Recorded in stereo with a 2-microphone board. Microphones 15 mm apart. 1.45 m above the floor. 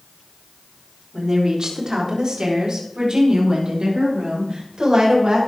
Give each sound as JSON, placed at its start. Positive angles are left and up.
{"t": 1.1, "sound": "a woman speaking", "side_deg": -40, "distance_m": 3.5}